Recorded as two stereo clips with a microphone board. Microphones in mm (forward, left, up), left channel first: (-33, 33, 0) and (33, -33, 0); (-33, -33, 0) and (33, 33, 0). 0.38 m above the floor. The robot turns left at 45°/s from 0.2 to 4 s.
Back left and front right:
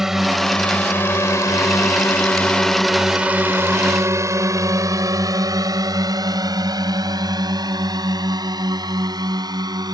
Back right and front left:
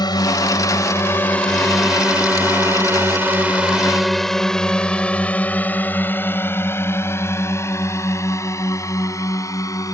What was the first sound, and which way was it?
A drone, 130° right.